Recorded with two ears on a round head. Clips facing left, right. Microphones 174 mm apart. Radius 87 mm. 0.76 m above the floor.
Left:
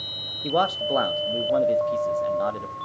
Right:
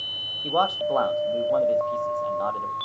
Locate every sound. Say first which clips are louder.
0.4 s a man speaking: even; 20° left (ahead or behind), 0.7 m